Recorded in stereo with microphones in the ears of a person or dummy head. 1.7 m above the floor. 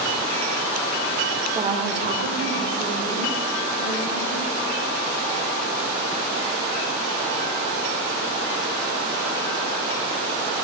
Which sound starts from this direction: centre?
A woman speaking, at 1.5 s.